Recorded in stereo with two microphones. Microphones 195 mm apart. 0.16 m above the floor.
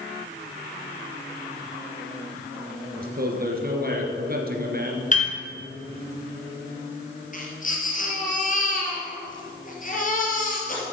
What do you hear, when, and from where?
3.0 s a man speaking: 50° right (ahead or behind), 2 m
5.1 s a piano: 40° left (ahead or behind), 2.5 m
7.3 s a baby crying: 45° left (ahead or behind), 3 m